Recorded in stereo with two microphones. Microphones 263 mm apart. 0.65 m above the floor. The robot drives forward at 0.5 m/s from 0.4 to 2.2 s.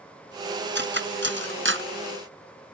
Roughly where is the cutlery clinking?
Right.